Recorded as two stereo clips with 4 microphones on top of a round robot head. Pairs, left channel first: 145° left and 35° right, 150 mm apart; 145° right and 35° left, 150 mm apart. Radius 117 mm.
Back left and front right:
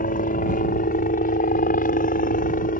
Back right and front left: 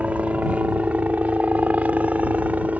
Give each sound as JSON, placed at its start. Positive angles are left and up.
{"t": 0.0, "sound": "a helicopter", "azimuth_deg": 115}